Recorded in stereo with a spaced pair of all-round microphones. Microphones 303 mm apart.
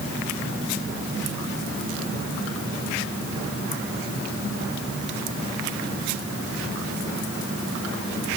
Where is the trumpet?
I don't hear a trumpet.